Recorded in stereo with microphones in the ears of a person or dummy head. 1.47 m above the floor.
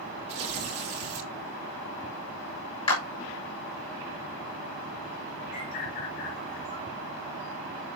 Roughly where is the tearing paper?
Right.